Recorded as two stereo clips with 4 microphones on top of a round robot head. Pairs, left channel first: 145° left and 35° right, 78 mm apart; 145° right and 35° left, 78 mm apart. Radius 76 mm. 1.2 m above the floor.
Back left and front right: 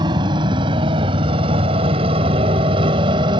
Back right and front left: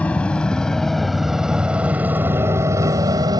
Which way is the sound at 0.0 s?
70° right.